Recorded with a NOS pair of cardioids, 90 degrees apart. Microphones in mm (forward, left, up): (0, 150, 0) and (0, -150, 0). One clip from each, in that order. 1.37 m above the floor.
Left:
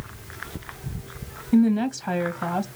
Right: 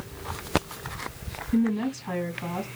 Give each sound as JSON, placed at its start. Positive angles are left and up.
{"t": 1.5, "sound": "a woman speaking", "azimuth_deg": 60, "distance_m": 1.9}